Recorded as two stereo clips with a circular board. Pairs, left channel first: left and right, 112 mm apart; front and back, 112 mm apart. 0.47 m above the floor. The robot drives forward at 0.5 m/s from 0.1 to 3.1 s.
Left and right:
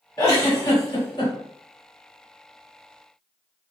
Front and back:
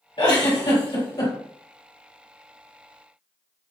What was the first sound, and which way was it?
A giggle, 35° left.